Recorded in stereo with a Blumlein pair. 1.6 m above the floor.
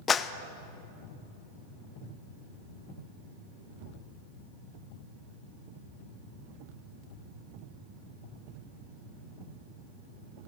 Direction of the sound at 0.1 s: 20° left.